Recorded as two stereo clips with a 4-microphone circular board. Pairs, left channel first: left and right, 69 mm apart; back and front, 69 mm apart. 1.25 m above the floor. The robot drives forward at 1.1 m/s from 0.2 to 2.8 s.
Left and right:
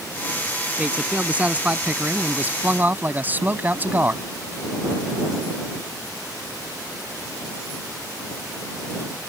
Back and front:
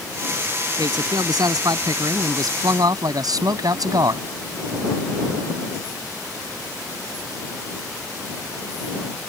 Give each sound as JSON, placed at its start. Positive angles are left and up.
{"t": 0.8, "sound": "a man speaking", "azimuth_deg": -20}